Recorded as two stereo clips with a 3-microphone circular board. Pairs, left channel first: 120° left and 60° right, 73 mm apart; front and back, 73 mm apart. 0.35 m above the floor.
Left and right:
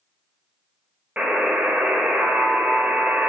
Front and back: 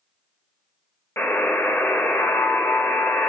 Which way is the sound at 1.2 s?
5° right.